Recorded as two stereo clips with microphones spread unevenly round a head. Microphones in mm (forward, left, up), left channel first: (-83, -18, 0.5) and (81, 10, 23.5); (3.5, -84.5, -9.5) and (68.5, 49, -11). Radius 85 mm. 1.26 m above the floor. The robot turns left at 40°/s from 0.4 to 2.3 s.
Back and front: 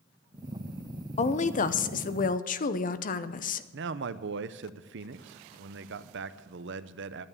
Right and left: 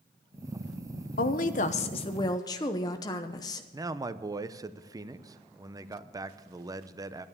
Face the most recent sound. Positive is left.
turn(degrees=0)